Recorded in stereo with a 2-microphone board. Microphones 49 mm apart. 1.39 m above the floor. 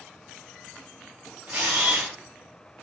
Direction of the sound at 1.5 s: 35° right (ahead or behind).